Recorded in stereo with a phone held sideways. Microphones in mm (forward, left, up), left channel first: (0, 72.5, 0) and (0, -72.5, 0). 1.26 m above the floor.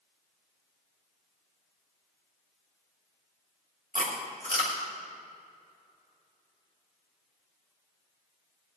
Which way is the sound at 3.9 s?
80° right.